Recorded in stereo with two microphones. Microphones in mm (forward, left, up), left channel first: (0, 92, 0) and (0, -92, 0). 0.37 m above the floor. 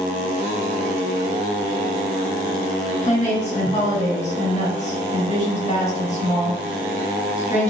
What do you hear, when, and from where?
3.0 s a woman speaking: 35° left (ahead or behind), 1.6 m